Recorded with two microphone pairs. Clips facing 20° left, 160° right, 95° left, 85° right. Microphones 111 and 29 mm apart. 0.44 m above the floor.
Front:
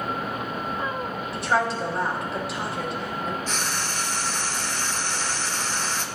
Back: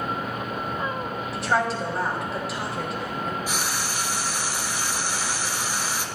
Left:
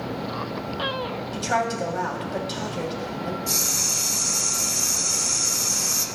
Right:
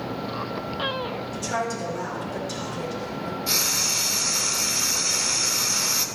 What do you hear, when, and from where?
1.3 s a woman speaking: 110° left, 2.5 m
3.5 s frying: 85° right, 0.7 m